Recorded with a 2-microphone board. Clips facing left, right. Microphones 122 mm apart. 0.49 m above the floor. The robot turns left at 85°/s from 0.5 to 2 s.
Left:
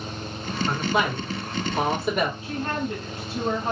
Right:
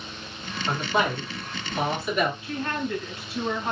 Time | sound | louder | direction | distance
0.7 | a man speaking | even | 160° right | 2.0 m
2.4 | a woman speaking | left 1 dB | 30° left (ahead or behind) | 1.8 m